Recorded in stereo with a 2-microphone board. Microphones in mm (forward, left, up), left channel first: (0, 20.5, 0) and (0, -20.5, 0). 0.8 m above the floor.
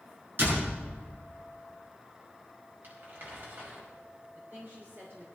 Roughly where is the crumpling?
Right.